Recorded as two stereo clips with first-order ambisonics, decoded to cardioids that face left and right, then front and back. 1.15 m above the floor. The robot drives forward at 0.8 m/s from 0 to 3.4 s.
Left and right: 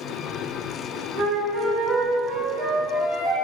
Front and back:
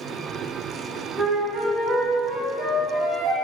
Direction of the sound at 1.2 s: 115° right.